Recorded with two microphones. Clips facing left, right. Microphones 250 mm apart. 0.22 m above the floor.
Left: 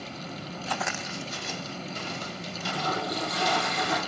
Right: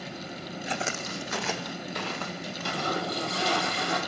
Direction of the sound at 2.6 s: 30° right (ahead or behind).